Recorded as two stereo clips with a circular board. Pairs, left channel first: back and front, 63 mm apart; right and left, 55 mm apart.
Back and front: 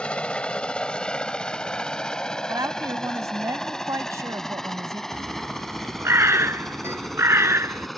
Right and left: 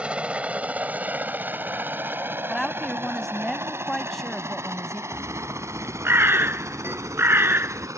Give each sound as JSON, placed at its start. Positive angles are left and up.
{"t": 0.0, "sound": "a helicopter", "azimuth_deg": 130}
{"t": 2.5, "sound": "a woman speaking", "azimuth_deg": -5}
{"t": 5.1, "sound": "a bird", "azimuth_deg": 45}